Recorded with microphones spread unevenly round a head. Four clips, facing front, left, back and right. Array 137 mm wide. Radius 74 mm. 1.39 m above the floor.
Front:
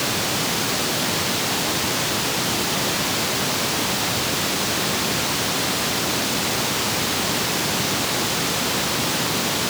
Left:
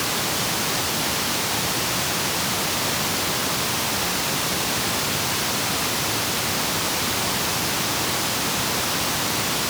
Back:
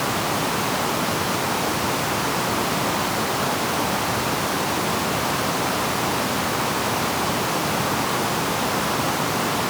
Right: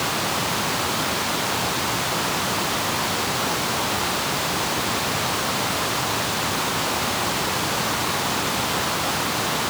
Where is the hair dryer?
No hair dryer in this recording.